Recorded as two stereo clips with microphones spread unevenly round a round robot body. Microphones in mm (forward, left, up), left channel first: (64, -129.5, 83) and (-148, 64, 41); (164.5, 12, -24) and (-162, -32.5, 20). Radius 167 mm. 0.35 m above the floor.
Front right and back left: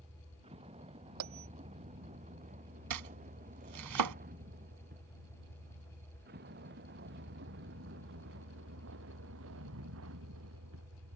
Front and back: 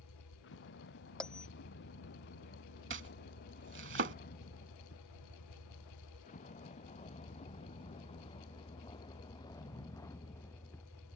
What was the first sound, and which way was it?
A vehicle, 65° left.